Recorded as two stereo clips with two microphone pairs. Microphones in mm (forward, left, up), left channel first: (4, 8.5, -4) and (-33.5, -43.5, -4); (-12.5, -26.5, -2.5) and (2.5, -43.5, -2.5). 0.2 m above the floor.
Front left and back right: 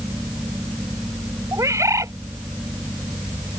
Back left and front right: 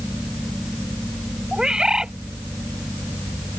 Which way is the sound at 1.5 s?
105° right.